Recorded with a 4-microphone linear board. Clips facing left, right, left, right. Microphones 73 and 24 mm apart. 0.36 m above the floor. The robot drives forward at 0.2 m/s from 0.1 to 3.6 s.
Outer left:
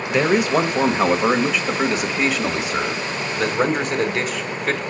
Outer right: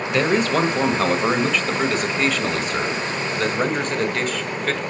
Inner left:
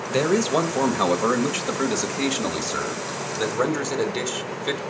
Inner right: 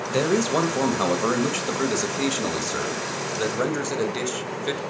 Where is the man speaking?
15° left (ahead or behind), 1.2 m; by 4.8 s 10° left (ahead or behind), 1.7 m.